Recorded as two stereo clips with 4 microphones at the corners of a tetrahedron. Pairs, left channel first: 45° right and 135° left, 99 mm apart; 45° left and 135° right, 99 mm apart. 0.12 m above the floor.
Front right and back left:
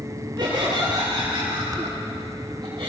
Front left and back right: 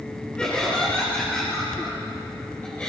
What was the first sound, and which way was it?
Laughter, 125° left.